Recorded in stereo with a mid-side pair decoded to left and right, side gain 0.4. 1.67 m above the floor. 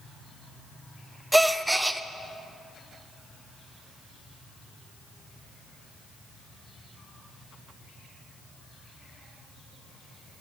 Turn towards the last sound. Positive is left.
turn(degrees=-10)